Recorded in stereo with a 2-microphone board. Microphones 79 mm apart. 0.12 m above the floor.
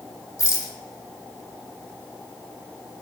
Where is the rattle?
45° left (ahead or behind), 0.5 m.